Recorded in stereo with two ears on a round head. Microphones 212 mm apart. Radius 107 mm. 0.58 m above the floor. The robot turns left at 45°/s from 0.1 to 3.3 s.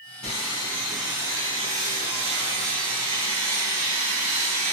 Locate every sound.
0.2 s sawing: 35° left, 1.5 m; by 4.7 s 105° right, 1.5 m